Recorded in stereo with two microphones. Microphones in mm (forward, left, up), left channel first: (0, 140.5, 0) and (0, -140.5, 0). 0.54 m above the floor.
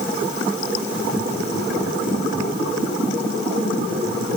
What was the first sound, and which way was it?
Only background noise.